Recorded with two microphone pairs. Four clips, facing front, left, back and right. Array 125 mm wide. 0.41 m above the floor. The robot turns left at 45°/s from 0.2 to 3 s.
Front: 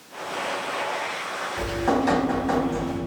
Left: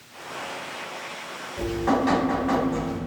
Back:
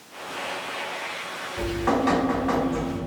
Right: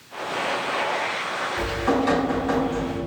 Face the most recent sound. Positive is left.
turn(degrees=140)